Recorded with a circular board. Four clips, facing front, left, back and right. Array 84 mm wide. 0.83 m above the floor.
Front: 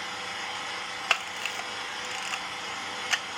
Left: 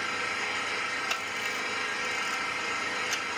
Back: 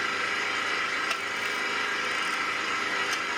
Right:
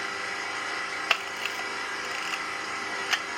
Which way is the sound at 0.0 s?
Straight behind.